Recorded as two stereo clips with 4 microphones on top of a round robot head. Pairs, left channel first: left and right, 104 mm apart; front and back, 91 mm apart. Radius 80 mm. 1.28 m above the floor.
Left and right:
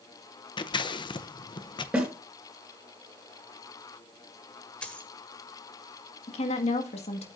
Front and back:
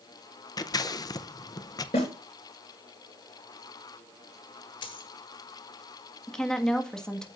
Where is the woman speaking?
85° left, 1.7 m.